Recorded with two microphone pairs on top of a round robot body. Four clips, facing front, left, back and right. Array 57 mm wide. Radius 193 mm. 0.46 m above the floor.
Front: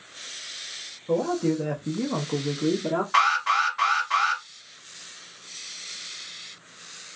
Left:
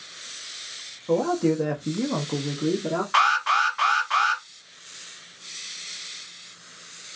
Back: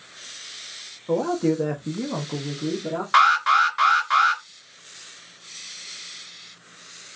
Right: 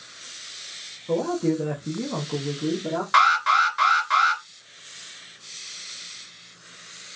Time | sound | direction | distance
1.1 | a man speaking | 155° left | 1.1 m
3.1 | an alarm | 145° right | 2.5 m